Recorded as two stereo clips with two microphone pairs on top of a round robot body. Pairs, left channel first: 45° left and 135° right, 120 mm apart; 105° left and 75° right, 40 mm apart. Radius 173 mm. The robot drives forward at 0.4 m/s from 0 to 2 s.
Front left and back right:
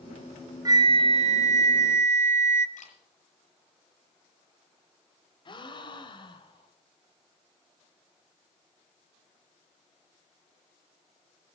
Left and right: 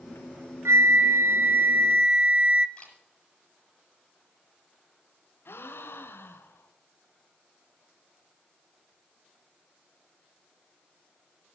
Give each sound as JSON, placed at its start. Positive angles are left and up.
{"t": 0.7, "sound": "a flute", "azimuth_deg": -75, "distance_m": 0.5}
{"t": 2.8, "sound": "a camera shutter", "azimuth_deg": 40, "distance_m": 7.0}
{"t": 5.5, "sound": "a gasp", "azimuth_deg": 95, "distance_m": 1.7}